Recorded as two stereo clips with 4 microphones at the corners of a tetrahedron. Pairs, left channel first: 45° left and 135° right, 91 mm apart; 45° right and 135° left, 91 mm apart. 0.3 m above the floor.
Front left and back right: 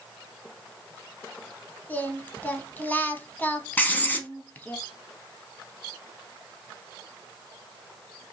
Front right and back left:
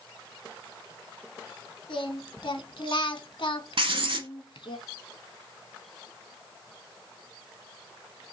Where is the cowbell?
No cowbell in this recording.